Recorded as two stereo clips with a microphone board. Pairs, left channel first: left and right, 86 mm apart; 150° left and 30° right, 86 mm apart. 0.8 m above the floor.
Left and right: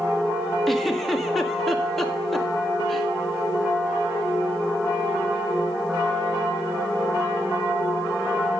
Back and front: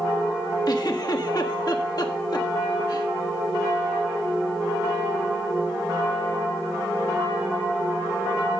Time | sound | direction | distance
0.7 | a giggle | 175° left | 1.5 m